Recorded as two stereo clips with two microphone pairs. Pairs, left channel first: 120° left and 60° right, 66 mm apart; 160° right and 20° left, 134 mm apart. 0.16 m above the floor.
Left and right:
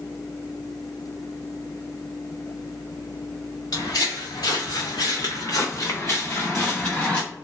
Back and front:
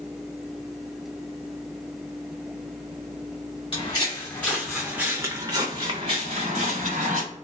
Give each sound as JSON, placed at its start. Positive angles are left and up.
{"t": 3.7, "sound": "footsteps", "azimuth_deg": 145, "distance_m": 1.0}